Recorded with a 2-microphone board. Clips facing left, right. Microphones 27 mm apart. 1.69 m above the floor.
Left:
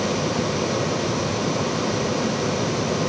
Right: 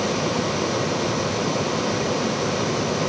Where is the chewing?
No chewing in this recording.